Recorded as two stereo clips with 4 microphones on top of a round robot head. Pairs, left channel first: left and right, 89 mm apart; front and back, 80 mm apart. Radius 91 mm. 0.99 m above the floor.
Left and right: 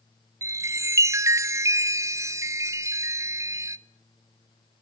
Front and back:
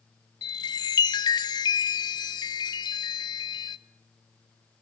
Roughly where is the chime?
Ahead right.